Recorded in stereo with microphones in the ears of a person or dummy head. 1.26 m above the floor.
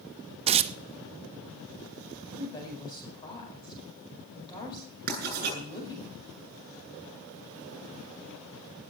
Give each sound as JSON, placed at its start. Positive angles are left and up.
{"t": 0.5, "sound": "tearing paper", "side_deg": -40, "distance_m": 0.7}
{"t": 2.3, "sound": "a woman speaking", "side_deg": 20, "distance_m": 5.0}
{"t": 5.1, "sound": "writing", "side_deg": -50, "distance_m": 9.0}